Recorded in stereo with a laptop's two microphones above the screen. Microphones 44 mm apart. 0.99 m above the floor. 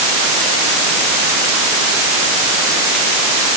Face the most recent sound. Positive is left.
No sound to turn to.